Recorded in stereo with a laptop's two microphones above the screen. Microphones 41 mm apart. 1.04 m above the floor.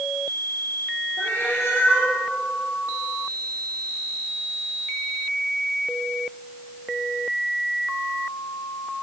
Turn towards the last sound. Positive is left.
turn(degrees=75)  # may be behind; listen again after turning